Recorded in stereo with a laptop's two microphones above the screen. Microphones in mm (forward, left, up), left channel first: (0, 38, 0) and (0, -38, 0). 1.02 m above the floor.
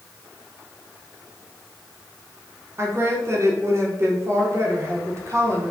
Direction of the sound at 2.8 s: 40° right (ahead or behind).